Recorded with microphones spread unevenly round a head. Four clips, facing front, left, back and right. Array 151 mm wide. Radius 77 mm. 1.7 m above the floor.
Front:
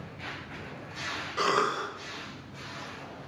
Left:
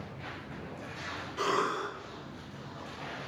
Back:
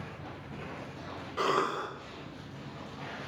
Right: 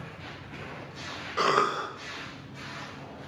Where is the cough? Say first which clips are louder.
Right 5 dB, front 2 dB; 65° right, 0.6 m.